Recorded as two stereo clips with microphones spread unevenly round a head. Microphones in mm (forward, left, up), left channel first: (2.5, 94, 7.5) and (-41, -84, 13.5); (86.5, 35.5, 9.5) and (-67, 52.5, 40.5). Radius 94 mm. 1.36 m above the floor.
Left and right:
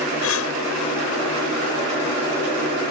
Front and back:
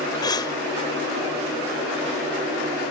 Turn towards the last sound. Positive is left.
turn(degrees=60)